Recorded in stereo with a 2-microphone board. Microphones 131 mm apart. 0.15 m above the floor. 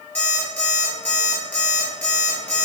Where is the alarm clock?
10° left (ahead or behind), 1.5 m.